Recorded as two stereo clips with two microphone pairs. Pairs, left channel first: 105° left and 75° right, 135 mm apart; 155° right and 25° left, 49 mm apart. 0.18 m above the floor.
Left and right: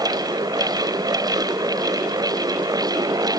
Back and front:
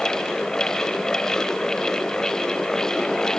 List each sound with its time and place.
Only background noise.